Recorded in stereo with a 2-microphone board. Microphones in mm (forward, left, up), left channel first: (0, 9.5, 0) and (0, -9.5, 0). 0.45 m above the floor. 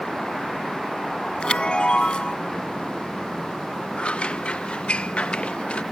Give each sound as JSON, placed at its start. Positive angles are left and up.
{"t": 1.4, "sound": "a chime", "side_deg": 60}
{"t": 4.0, "sound": "scissors", "side_deg": 70}